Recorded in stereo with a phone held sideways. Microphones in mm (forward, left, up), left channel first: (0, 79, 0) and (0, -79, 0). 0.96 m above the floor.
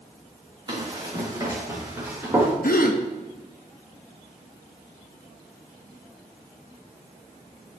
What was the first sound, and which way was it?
Running footsteps, 30° right (ahead or behind).